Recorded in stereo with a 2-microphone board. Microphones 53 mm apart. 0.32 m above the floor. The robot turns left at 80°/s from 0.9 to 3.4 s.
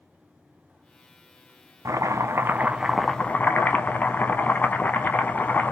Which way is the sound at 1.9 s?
90° right.